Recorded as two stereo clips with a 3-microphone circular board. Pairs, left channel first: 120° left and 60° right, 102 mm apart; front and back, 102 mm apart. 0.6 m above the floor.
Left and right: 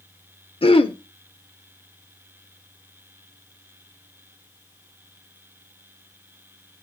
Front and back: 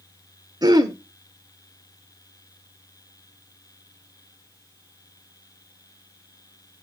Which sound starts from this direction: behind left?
Throat clearing, at 0.6 s.